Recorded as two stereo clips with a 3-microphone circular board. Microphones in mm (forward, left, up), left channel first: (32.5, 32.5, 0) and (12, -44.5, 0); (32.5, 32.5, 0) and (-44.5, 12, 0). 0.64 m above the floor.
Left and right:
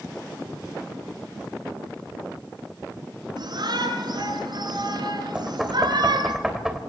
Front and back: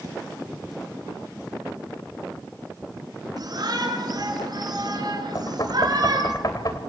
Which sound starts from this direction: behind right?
A shout, at 3.4 s.